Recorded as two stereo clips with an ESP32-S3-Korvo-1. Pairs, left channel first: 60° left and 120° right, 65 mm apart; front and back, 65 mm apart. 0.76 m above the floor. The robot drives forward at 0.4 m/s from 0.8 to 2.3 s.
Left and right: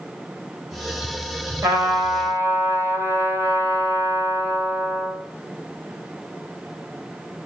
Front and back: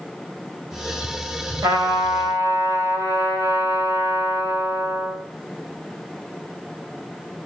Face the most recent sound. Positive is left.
turn(degrees=-170)